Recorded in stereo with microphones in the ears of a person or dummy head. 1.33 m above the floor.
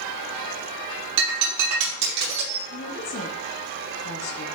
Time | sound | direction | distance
1.2 | breaking glass | 75° right (ahead or behind) | 5.5 m
2.7 | a woman speaking | 75° left (ahead or behind) | 1.7 m